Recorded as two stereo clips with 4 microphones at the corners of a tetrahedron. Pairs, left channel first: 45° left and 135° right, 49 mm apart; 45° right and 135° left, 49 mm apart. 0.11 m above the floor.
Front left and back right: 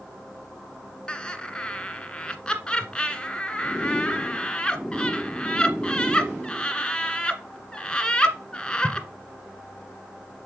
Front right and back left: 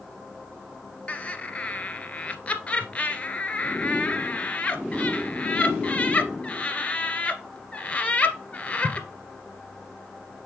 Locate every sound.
1.1 s laughter: 10° right, 1.5 m